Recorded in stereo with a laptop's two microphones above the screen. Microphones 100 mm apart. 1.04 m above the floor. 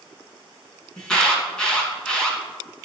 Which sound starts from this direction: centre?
An alarm, at 1.0 s.